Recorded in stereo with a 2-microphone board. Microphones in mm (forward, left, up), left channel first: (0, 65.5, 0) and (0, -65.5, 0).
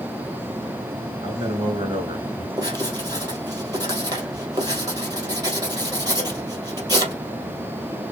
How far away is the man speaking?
About 3 m.